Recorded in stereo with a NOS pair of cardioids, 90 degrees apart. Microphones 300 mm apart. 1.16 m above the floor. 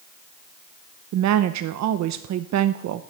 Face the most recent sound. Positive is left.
turn(degrees=-65)